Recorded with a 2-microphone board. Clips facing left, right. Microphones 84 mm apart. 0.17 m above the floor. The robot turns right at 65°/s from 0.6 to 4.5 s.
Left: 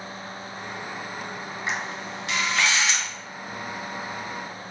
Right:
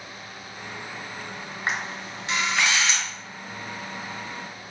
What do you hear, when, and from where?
1.7 s a camera shutter: 55° right (ahead or behind), 1.3 m; by 3.1 s 15° left (ahead or behind), 1.3 m